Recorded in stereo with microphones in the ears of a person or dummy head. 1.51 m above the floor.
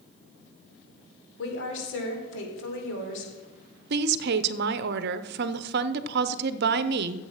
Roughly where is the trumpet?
I don't hear a trumpet.